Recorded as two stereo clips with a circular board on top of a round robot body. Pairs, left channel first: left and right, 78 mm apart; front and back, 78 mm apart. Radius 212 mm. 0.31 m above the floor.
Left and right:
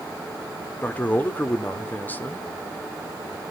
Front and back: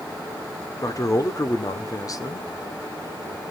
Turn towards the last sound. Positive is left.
turn(degrees=30)